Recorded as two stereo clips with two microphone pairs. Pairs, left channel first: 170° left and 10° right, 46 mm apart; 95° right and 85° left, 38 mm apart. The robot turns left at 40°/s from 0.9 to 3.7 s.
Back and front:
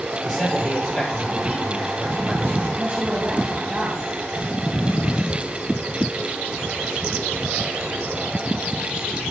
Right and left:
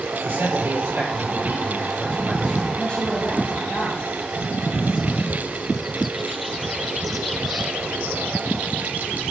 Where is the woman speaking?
40° right, 1.9 m; by 4.0 s 80° right, 1.9 m.